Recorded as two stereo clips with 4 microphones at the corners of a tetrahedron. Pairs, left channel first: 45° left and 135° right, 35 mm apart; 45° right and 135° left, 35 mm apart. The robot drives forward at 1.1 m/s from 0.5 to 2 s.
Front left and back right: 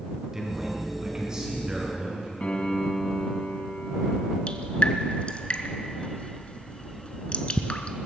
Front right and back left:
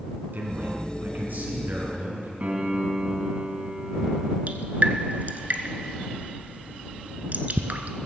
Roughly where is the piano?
Left.